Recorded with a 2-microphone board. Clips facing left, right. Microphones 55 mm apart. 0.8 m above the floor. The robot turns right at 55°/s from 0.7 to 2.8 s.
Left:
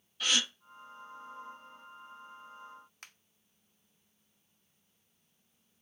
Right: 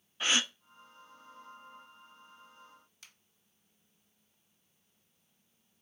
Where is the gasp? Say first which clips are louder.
Right 1 dB; 25° right (ahead or behind), 0.5 m.